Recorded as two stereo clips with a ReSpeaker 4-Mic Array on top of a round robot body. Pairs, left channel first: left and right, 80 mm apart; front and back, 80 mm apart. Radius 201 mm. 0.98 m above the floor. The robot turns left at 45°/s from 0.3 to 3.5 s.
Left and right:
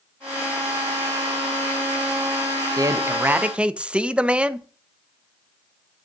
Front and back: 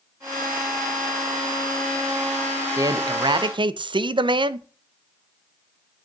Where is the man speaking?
135° right, 0.9 m; by 4.7 s 165° right, 0.9 m.